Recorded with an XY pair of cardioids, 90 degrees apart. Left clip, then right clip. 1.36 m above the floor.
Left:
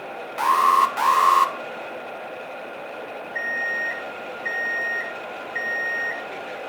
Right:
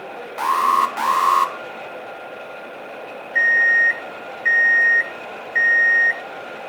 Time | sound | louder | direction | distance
0.4 | an alarm | even | straight ahead | 1.5 m
3.4 | an alarm clock | right 11 dB | 50° right | 3 m